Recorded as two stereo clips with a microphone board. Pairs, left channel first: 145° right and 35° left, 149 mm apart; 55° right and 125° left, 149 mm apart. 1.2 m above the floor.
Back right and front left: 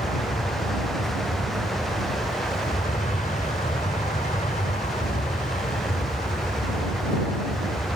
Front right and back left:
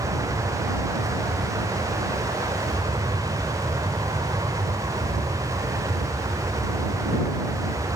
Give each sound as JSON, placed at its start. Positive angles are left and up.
{"t": 0.0, "sound": "an aircraft", "azimuth_deg": -175}